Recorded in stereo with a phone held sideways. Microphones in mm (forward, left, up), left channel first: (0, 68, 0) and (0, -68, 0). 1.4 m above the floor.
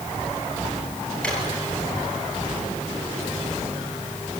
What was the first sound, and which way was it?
A drawer, 10° left (ahead or behind).